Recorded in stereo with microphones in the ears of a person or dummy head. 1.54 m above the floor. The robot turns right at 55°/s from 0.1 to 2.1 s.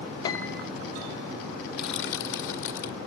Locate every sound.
0.2 s a piano: 25° left (ahead or behind), 0.7 m; by 0.7 s centre (ahead or behind), 0.7 m
1.7 s crushing: 50° left (ahead or behind), 2 m; by 3.0 s 65° left (ahead or behind), 2 m